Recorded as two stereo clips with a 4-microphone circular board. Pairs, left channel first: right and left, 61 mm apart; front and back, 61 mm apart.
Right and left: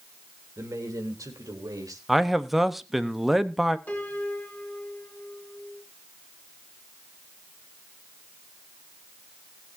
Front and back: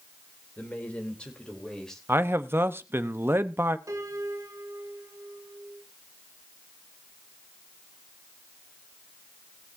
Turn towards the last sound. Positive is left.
turn(degrees=-150)